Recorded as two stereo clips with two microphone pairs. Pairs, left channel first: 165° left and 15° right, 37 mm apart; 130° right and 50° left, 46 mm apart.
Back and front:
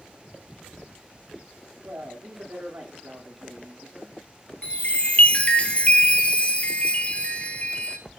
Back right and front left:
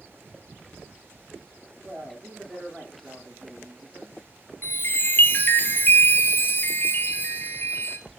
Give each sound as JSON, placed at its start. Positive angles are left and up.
{"t": 1.8, "sound": "a man speaking", "azimuth_deg": -30, "distance_m": 8.5}
{"t": 4.6, "sound": "a chime", "azimuth_deg": -155, "distance_m": 1.6}